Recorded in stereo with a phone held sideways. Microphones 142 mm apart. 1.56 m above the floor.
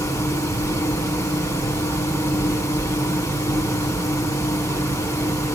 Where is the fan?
25° left (ahead or behind), 1.8 m.